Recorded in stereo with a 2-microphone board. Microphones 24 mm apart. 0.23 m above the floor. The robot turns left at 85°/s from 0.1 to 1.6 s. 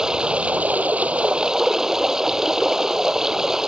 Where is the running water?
25° right; by 3.7 s 155° right.